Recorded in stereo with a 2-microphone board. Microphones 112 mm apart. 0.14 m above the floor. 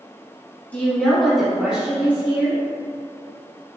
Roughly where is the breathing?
I don't hear breathing.